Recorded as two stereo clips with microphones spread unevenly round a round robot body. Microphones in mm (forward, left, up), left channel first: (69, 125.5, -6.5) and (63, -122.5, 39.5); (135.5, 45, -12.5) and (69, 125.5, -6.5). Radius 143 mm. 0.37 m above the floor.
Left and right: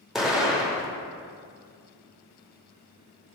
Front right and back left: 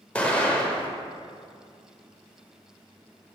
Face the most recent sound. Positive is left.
turn(degrees=15)